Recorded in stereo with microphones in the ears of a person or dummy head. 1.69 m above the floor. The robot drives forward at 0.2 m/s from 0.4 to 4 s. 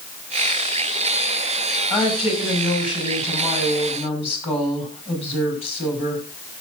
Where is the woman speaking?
30° left (ahead or behind), 6 m; by 6.2 s 35° left (ahead or behind), 5.5 m.